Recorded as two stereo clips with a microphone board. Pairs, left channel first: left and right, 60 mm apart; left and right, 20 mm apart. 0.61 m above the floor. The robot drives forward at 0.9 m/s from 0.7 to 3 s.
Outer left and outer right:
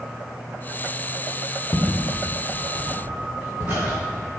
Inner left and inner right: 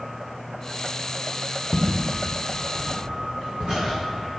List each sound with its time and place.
1.7 s footsteps: 20° left (ahead or behind), 1.0 m; by 4.4 s 45° right (ahead or behind), 2.5 m